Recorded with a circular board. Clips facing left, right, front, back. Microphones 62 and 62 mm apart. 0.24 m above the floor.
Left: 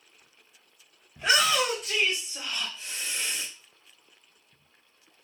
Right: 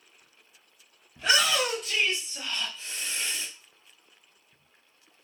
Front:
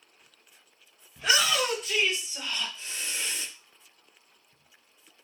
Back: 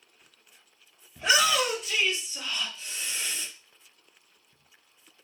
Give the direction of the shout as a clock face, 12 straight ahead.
7 o'clock.